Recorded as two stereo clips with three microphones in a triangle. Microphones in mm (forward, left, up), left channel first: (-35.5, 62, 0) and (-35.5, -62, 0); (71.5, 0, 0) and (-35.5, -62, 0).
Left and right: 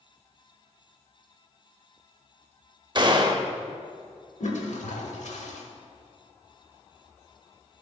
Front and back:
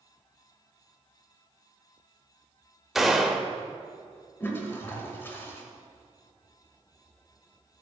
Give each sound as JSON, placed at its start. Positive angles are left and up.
{"t": 3.0, "sound": "a gunshot", "azimuth_deg": -60, "distance_m": 0.5}
{"t": 4.4, "sound": "a toilet flushing", "azimuth_deg": 100, "distance_m": 0.9}